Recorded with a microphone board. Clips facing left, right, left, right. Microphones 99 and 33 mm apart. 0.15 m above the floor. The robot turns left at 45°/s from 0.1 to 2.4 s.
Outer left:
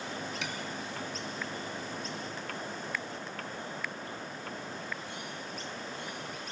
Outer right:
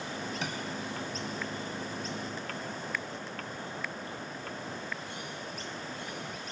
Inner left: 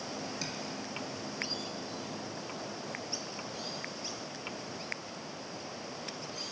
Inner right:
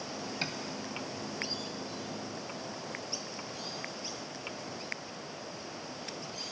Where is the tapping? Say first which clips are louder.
Outer right 2 dB, inner right 3 dB; 40° right (ahead or behind), 0.6 m; by 0.6 s 35° right (ahead or behind), 0.6 m.